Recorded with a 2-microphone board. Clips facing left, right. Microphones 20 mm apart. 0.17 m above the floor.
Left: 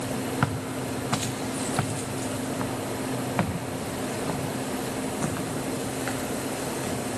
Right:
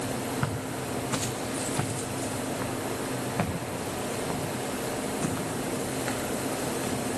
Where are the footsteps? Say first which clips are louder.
Left 3 dB; 75° left (ahead or behind), 2.5 m; by 7.0 s 55° left (ahead or behind), 5.5 m.